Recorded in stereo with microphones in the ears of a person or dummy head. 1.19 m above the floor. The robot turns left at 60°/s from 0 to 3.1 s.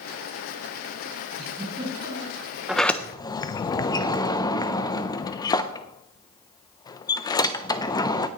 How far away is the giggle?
About 7 m.